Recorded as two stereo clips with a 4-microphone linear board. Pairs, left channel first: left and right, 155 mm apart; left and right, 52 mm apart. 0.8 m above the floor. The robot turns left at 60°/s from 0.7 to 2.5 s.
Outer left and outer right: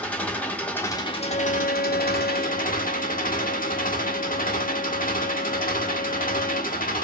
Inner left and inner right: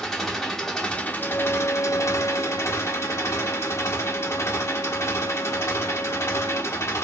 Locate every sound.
0.0 s an engine running: 170° left, 1.0 m; by 7.0 s 65° left, 1.0 m
1.2 s a violin: 145° left, 1.2 m; by 6.8 s 65° left, 1.2 m